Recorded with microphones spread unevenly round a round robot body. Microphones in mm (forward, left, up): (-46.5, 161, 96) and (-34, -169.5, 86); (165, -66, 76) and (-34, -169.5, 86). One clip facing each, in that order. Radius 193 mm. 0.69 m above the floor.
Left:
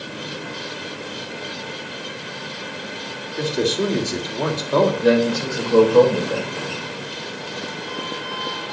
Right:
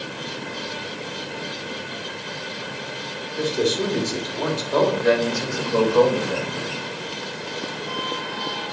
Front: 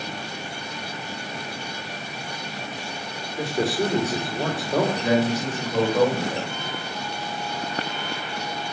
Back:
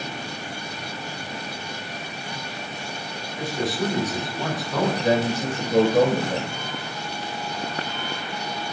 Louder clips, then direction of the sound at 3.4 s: Left 1 dB, front 3 dB; 95° left.